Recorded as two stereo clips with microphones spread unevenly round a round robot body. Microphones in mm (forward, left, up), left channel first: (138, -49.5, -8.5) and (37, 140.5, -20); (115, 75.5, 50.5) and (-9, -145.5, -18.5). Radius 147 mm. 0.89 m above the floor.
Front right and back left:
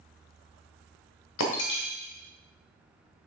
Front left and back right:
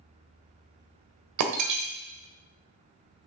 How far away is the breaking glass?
About 1.5 m.